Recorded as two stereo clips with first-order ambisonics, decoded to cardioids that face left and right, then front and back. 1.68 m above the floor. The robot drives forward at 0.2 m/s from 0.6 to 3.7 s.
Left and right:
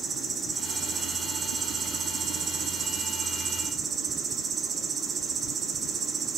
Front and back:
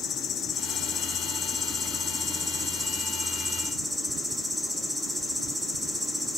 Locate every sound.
0.0 s an insect: 35° right, 1.2 m; by 6.4 s 100° right, 1.1 m